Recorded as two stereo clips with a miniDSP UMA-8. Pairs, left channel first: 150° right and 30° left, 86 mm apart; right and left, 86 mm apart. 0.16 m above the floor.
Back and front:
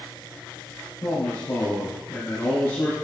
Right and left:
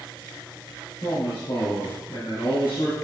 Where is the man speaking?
85° right, 3.5 m.